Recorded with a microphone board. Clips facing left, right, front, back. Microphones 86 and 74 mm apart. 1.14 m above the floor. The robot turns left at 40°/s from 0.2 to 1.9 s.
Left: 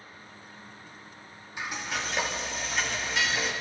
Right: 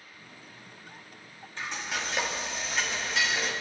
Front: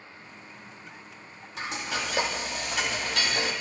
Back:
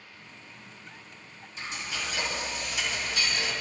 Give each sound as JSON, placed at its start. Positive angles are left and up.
{"t": 1.6, "sound": "frying", "azimuth_deg": 15, "distance_m": 2.5}